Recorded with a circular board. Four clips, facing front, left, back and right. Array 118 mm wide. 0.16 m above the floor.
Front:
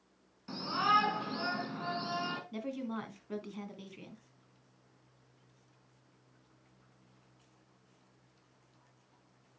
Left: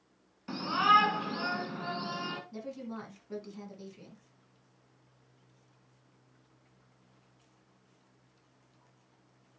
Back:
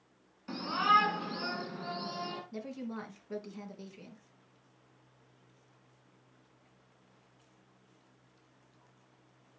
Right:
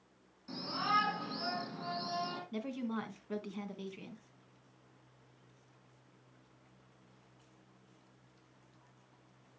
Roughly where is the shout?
Left.